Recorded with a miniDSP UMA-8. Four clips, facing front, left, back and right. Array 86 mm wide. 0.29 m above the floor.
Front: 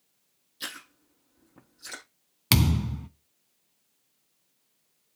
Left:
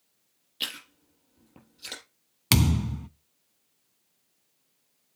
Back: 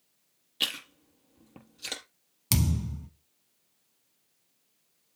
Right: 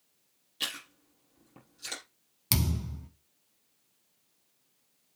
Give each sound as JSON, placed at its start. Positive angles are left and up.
{"t": 0.6, "sound": "chewing", "azimuth_deg": 170, "distance_m": 4.5}
{"t": 2.5, "sound": "a thud", "azimuth_deg": 40, "distance_m": 0.6}